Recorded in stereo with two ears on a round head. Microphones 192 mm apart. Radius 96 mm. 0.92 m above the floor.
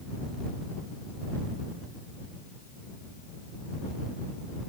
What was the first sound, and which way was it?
Only background noise.